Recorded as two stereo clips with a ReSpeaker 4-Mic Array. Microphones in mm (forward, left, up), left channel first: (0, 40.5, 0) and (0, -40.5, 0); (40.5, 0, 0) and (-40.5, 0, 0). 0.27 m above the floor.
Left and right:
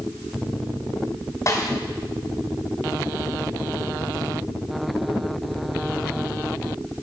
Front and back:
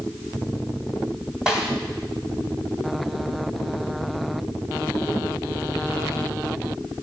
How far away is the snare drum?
About 1.8 m.